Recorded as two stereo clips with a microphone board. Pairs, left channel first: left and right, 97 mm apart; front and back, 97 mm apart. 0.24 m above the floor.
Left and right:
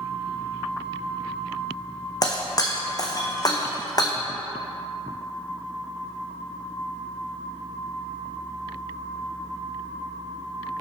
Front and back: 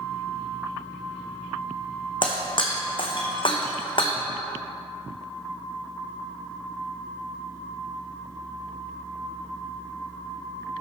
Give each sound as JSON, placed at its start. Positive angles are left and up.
{"t": 2.2, "sound": "breaking glass", "azimuth_deg": 35, "distance_m": 1.4}